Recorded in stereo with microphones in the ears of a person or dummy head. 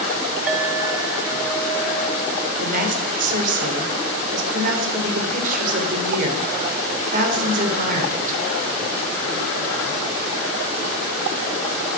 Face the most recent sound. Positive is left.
turn(degrees=-50)  # may be behind; listen again after turning